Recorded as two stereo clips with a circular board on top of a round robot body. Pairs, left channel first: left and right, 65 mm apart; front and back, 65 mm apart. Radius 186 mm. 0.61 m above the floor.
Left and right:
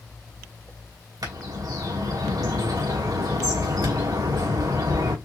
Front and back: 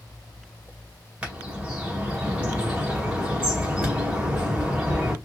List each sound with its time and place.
1.2 s a bird: 105° right, 2 m